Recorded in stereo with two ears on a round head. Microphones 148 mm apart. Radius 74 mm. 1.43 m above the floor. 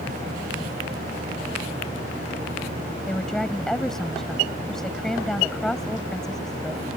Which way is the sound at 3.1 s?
Centre (ahead or behind).